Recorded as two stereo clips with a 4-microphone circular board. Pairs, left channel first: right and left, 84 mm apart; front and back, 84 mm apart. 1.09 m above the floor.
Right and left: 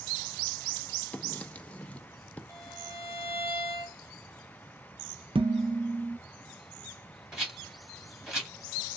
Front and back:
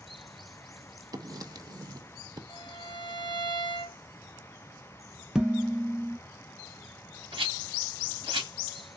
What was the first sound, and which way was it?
Writing, 160° right.